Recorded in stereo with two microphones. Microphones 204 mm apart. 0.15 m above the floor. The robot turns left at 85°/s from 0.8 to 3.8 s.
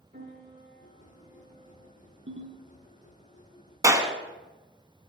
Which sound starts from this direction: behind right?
A piano, at 0.1 s.